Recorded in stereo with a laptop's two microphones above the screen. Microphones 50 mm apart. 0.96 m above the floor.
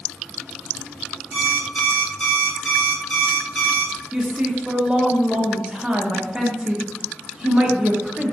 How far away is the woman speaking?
About 0.5 m.